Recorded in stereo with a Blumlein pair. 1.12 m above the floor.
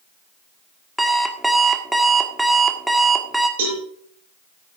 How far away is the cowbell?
About 7 m.